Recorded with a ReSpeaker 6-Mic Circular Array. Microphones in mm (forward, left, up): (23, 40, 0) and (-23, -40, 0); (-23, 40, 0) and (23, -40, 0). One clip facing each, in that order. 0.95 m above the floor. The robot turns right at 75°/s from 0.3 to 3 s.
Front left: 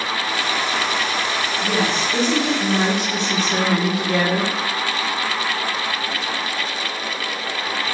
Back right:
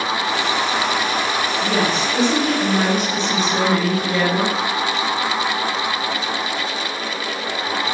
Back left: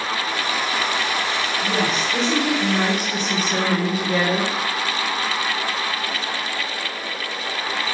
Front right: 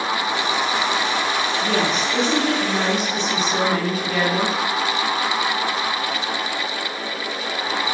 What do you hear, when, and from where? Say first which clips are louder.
1.6 s a woman speaking: even, even; 35° right, 1.7 m; by 4.5 s 70° left, 1.7 m